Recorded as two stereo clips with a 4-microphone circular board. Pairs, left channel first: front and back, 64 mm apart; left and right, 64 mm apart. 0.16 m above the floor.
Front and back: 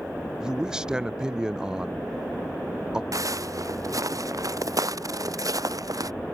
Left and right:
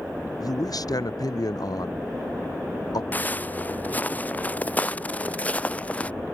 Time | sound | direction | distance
0.4 | a man speaking | 100° left | ?
3.1 | footsteps | 150° left | ?